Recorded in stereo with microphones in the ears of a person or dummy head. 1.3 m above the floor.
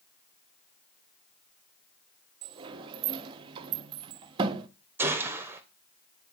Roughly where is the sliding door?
Right.